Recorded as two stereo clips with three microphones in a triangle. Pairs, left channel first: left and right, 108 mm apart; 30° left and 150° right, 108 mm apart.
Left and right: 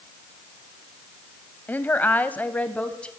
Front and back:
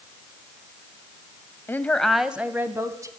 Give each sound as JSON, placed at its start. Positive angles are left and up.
{"t": 1.7, "sound": "a woman speaking", "azimuth_deg": 50, "distance_m": 1.2}